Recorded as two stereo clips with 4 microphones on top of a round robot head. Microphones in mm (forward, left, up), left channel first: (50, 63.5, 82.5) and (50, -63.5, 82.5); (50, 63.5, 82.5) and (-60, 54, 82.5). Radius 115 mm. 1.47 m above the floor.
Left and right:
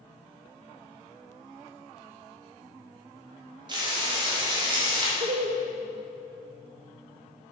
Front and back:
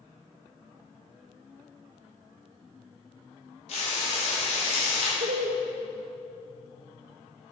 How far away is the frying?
About 3 m.